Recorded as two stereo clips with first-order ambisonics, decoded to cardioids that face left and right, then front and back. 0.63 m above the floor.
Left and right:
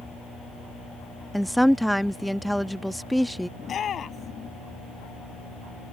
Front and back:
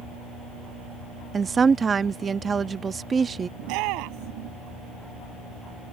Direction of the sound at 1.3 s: 170° right.